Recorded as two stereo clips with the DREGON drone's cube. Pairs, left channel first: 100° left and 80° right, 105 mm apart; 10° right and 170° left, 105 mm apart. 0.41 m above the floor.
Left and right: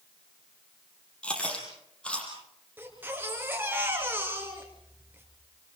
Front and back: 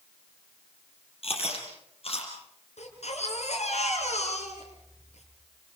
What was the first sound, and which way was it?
Chewing, 20° left.